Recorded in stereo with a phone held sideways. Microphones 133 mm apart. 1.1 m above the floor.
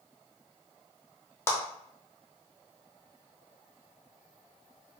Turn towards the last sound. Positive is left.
turn(degrees=20)  # may be behind; listen again after turning